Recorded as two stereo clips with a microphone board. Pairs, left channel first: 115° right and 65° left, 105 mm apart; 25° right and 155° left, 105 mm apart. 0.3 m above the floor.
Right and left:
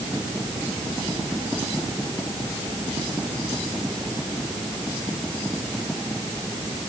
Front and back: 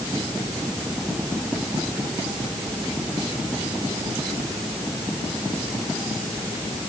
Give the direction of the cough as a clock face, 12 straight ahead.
No cough in this recording.